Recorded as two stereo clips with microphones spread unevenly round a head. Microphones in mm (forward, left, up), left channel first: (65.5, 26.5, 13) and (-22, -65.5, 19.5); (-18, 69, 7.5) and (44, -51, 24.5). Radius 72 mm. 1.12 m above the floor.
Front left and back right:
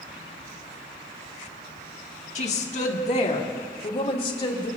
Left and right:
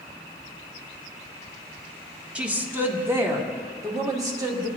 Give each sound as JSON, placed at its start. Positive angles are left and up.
{"t": 2.4, "sound": "a woman speaking", "azimuth_deg": 20, "distance_m": 1.6}